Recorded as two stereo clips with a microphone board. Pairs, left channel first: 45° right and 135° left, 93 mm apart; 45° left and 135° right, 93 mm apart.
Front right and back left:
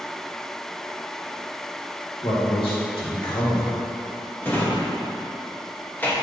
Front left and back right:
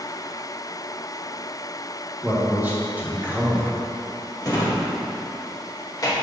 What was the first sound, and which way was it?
A man speaking, 65° right.